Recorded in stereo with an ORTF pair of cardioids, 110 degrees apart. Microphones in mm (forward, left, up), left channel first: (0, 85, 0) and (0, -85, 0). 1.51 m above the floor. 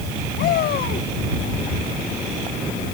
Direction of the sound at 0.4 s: 65° left.